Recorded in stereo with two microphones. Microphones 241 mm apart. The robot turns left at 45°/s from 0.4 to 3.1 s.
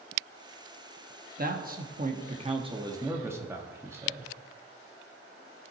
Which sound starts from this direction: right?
A man speaking, at 1.4 s.